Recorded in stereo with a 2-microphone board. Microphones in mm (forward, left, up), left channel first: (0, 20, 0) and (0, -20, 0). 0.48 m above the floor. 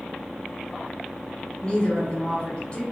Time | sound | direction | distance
1.6 | a woman speaking | 30° left (ahead or behind) | 1.2 m